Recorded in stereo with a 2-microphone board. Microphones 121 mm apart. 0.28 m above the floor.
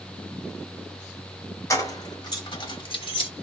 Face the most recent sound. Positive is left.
turn(degrees=45)  # may be behind; listen again after turning